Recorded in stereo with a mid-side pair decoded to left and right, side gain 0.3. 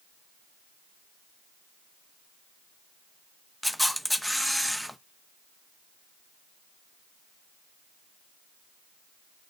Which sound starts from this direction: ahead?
A camera shutter, at 3.6 s.